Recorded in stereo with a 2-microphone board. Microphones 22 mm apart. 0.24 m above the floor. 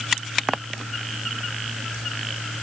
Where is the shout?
I don't hear a shout.